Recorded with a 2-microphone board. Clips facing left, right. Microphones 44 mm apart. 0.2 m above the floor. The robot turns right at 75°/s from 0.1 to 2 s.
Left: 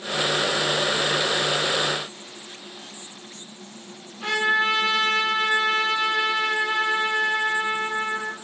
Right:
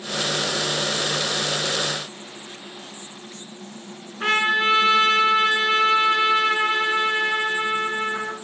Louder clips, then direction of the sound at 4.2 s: Right 2 dB; 60° right (ahead or behind).